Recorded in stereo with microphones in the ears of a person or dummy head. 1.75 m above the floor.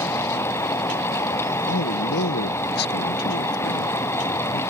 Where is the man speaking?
60° left (ahead or behind).